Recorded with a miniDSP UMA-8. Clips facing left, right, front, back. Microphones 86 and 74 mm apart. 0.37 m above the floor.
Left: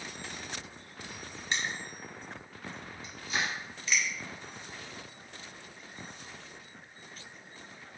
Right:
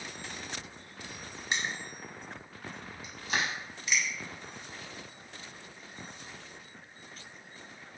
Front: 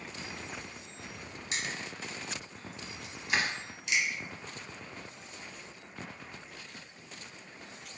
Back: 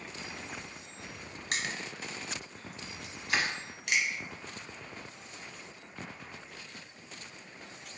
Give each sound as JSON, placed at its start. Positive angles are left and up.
{"t": 1.5, "sound": "crushing", "azimuth_deg": -165, "distance_m": 0.8}
{"t": 3.3, "sound": "crushing", "azimuth_deg": -80, "distance_m": 0.8}